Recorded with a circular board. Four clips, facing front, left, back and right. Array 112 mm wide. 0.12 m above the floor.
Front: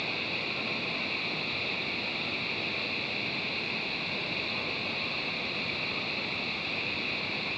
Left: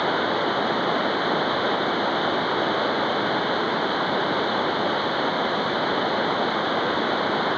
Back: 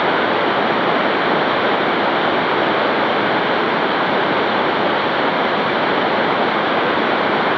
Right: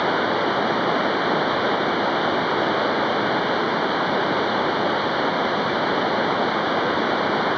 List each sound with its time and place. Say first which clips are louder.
0.0 s running water: right 2 dB, back 22 dB; 175° right